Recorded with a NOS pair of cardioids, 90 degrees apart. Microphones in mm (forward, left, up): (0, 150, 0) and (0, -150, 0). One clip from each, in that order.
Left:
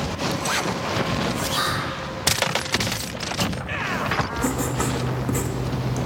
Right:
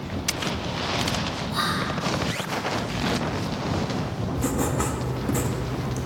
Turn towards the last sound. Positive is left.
turn(degrees=10)